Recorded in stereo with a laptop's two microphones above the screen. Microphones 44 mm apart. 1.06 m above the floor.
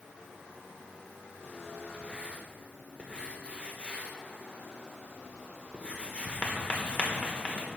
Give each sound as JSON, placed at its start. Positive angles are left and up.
{"t": 1.9, "sound": "writing", "side_deg": 30, "distance_m": 1.2}